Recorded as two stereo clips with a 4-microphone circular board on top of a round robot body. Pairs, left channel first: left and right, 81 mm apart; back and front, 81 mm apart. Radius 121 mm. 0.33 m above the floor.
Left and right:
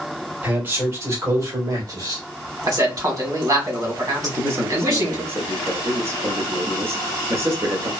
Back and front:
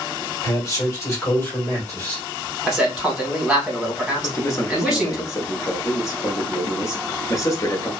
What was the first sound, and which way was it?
A man speaking, 150° right.